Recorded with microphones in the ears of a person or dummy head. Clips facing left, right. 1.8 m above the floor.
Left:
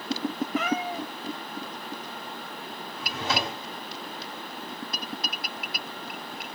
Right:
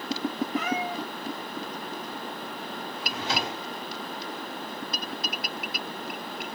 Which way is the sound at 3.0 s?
40° left (ahead or behind).